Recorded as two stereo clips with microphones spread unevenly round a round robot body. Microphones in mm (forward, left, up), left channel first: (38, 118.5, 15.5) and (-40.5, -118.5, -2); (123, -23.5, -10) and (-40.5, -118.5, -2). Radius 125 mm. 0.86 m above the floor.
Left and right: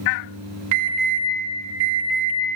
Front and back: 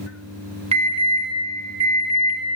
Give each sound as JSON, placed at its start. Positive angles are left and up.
{"t": 0.7, "sound": "an alarm", "azimuth_deg": -95, "distance_m": 5.5}